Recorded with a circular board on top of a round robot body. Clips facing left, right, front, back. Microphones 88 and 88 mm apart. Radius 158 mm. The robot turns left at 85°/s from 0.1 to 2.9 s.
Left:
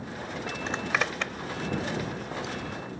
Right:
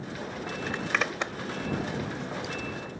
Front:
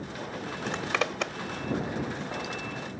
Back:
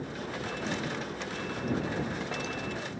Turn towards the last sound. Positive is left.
turn(degrees=-160)